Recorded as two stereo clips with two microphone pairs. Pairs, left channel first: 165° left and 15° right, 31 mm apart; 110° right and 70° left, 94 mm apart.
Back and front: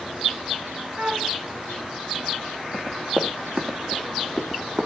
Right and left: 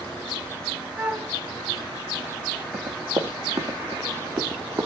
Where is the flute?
5° left, 1.4 m.